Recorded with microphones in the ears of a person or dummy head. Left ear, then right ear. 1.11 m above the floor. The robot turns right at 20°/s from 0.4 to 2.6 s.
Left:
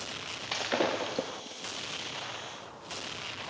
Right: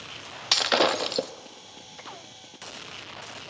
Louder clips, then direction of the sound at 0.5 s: Right 9 dB; 55° right (ahead or behind).